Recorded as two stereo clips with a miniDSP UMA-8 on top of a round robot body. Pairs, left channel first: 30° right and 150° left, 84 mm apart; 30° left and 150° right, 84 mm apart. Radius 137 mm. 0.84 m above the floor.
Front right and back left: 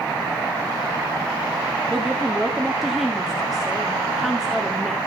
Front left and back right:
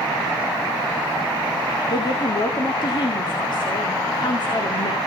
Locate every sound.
1.9 s a woman speaking: 60° left, 2.5 m